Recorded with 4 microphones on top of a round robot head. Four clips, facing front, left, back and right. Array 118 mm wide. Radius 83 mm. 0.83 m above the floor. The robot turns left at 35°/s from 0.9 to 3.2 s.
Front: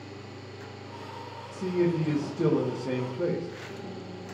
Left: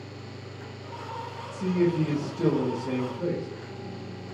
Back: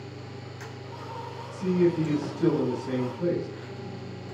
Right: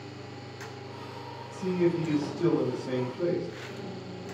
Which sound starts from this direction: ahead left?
A man speaking, at 1.5 s.